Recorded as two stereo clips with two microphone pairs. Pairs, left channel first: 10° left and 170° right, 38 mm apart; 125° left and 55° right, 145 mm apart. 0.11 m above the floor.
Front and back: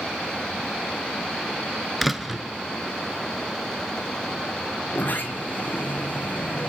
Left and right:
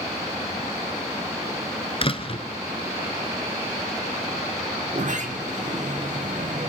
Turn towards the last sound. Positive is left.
turn(degrees=-25)